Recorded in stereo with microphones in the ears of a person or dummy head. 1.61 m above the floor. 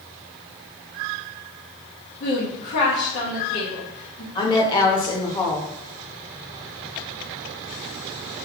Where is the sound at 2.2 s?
60° left (ahead or behind), 1.2 m.